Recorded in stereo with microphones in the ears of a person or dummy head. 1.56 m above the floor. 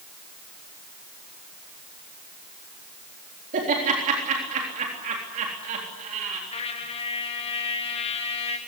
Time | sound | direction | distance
3.5 | laughter | 40° right (ahead or behind) | 3.5 m
6.5 | a trumpet | 25° left (ahead or behind) | 2.5 m